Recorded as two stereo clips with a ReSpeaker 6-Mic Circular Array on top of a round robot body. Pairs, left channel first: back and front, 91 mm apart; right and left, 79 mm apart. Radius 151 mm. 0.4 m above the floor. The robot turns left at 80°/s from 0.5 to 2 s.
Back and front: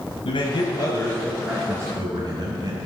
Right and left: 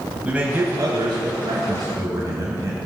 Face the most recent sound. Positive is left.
turn(degrees=45)